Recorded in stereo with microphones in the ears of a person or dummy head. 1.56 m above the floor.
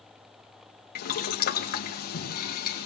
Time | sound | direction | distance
0.9 | boiling | 45° left (ahead or behind) | 1.6 m